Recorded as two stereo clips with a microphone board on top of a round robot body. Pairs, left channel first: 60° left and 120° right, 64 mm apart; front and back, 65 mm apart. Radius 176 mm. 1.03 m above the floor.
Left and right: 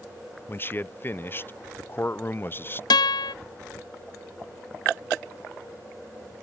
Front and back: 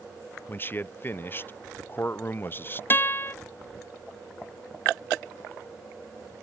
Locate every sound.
0.5 s a man speaking: 30° left
2.9 s a guitar: 60° left